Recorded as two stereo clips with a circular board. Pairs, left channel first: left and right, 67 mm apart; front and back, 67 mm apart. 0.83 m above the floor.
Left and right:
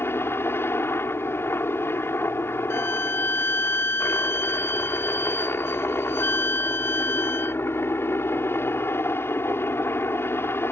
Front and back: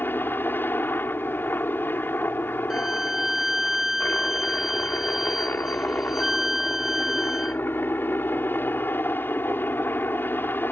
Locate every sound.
0.0 s a helicopter: 50° left
2.7 s a violin: 100° left